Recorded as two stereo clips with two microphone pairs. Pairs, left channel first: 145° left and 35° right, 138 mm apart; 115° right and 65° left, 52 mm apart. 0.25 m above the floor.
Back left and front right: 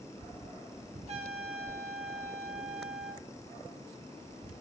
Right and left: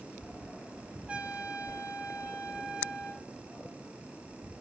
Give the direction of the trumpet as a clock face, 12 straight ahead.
12 o'clock.